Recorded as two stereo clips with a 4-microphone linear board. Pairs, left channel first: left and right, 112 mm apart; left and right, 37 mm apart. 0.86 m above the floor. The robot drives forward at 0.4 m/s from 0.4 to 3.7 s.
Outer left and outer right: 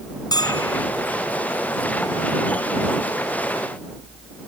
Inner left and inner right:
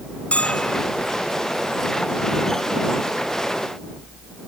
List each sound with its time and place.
0.3 s a bell: 35° left (ahead or behind)